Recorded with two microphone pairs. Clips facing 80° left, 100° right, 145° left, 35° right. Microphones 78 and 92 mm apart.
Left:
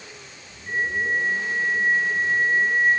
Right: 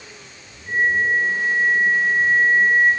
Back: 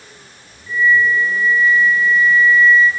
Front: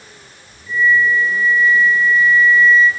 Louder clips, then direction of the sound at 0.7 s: Right 5 dB, even; 30° left.